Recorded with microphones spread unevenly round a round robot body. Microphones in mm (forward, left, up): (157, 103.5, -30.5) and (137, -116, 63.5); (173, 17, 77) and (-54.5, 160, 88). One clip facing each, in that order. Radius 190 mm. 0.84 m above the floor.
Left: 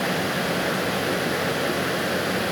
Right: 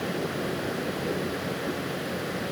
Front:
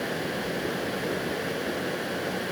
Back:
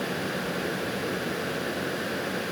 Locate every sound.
Only background noise.